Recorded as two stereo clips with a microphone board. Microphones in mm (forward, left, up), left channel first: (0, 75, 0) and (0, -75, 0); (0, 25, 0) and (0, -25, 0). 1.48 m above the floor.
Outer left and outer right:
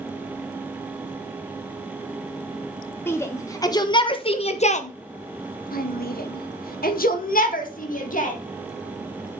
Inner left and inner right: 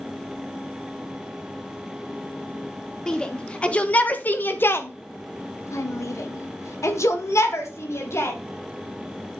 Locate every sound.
3.1 s a shout: 15° left (ahead or behind), 1.6 m; by 8.4 s 60° left (ahead or behind), 2 m